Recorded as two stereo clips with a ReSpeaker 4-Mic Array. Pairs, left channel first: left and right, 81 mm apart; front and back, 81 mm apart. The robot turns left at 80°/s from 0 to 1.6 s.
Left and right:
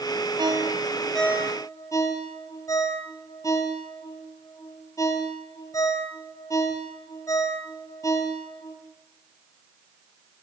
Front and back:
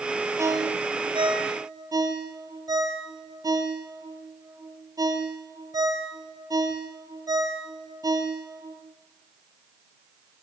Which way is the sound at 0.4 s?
125° right.